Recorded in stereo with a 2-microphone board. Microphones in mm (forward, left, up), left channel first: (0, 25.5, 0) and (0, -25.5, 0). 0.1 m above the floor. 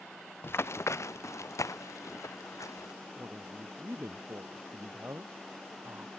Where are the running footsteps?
50° left (ahead or behind); by 2.9 s 90° left.